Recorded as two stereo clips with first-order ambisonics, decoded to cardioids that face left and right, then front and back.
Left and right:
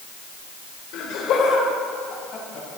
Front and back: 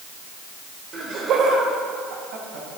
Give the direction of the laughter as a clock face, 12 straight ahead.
8 o'clock.